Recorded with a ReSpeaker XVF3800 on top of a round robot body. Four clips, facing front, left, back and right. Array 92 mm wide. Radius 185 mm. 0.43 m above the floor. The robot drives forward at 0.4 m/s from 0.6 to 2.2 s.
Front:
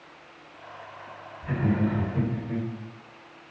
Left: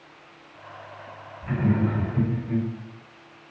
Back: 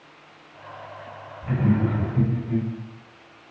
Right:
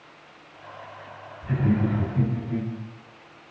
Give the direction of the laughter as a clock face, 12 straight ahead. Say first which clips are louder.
Even, back 3 dB; 8 o'clock.